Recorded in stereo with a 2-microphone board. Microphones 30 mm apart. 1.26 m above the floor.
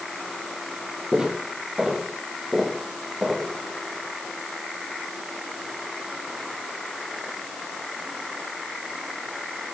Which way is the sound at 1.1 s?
20° right (ahead or behind).